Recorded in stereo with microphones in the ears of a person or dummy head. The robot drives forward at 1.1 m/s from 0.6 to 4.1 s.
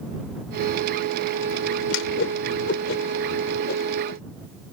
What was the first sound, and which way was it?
A whoosh, 80° left.